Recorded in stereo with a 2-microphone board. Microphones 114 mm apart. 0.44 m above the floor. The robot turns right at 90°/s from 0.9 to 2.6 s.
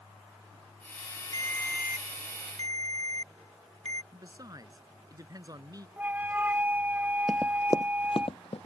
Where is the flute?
15° right (ahead or behind).